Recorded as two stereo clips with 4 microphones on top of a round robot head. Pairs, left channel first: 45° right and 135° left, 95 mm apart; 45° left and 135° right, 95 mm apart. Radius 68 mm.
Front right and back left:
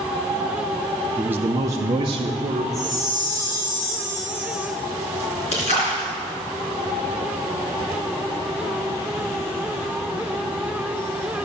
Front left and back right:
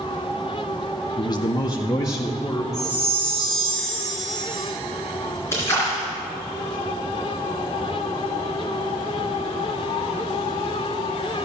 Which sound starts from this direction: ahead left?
A man speaking, at 1.2 s.